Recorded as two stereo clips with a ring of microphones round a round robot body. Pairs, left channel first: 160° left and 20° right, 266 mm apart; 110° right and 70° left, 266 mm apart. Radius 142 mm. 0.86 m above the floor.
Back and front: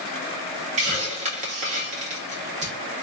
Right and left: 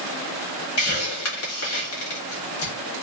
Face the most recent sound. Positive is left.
turn(degrees=-85)